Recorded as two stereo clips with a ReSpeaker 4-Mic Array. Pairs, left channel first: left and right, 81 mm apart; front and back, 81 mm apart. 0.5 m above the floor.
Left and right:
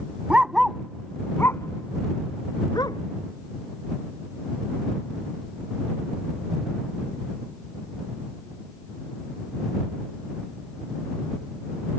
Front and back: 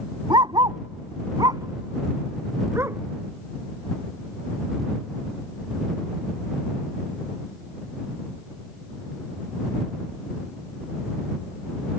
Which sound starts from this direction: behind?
A dog barking, at 0.3 s.